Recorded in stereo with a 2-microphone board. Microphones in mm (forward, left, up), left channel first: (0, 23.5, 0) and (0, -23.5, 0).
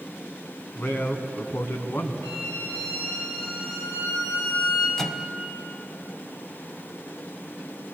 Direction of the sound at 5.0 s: 10° left (ahead or behind).